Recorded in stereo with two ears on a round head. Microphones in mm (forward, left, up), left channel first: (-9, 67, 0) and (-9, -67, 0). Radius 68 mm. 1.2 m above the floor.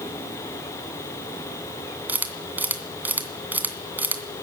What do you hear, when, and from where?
2.1 s a camera shutter: 10° right (ahead or behind), 2.5 m